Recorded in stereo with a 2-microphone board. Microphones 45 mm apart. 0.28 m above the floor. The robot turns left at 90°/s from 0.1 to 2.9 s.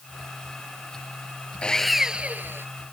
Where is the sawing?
25° left; by 2.7 s 70° right.